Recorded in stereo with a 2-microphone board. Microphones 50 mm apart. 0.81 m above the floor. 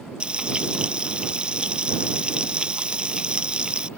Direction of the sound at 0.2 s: 20° right (ahead or behind).